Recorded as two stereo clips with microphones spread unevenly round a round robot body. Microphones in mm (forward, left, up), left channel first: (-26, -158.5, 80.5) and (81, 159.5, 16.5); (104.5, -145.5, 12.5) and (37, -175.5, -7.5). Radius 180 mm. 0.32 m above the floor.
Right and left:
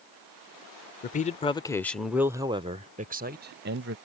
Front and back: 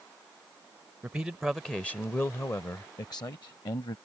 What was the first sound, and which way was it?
A man speaking, 170° right.